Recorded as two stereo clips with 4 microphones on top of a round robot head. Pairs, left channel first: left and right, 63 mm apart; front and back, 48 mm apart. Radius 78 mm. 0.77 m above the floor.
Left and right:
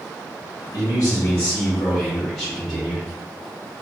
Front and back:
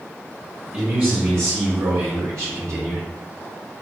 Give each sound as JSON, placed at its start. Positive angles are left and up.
{"t": 0.7, "sound": "a man speaking", "azimuth_deg": 125, "distance_m": 1.0}